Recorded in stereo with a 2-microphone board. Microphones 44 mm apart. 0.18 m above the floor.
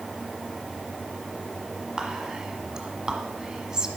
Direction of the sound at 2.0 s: 15° right (ahead or behind).